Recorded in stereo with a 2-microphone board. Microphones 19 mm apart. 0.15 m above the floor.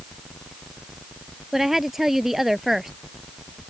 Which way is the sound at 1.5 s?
15° right (ahead or behind).